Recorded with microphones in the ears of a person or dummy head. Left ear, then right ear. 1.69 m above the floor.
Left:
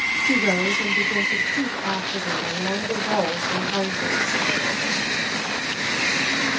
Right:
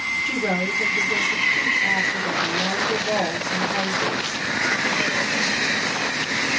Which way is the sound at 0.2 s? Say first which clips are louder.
Left 3 dB; 20° left (ahead or behind).